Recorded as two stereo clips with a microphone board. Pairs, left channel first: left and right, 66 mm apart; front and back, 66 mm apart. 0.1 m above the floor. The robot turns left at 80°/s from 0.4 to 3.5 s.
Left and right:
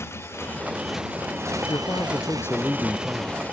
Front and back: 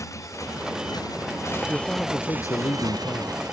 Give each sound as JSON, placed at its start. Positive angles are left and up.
{"t": 0.0, "sound": "a motorcycle", "azimuth_deg": 40}
{"t": 1.7, "sound": "a man speaking", "azimuth_deg": 100}